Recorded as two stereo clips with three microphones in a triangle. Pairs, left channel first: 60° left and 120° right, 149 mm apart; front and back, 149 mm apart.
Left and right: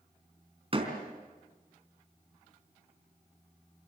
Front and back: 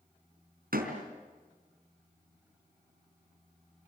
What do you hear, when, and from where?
0.7 s a door slam: 170° right, 4 m